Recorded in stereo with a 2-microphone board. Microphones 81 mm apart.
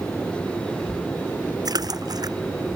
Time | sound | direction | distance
1.6 | a splash | 55° right (ahead or behind) | ?